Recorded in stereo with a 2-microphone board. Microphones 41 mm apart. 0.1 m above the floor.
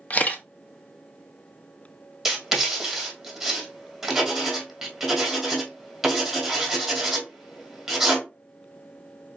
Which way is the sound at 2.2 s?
15° right (ahead or behind).